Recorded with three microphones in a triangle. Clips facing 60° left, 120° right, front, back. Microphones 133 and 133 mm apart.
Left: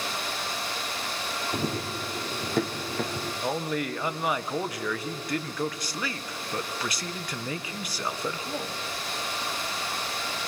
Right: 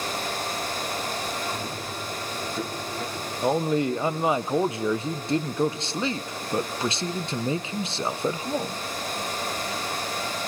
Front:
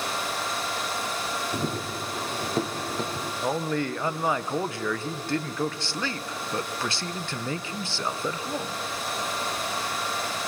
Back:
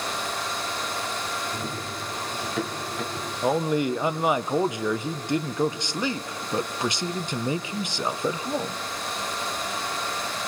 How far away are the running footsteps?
About 1.8 m.